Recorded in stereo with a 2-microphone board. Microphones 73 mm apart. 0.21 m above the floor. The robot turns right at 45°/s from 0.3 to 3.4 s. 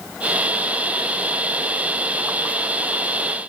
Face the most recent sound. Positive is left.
No sound to turn to.